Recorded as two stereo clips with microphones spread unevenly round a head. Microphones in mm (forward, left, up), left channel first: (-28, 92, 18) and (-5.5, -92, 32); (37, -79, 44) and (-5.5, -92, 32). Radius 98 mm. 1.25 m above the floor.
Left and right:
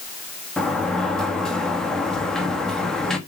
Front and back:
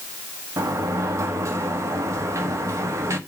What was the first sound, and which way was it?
A sliding door, 175° right.